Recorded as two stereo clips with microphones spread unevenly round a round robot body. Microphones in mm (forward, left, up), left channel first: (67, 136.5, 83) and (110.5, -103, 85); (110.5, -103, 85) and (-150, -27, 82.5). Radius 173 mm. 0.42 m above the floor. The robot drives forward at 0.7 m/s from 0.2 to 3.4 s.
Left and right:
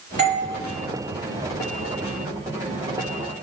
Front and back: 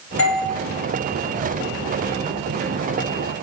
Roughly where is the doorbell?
Ahead right.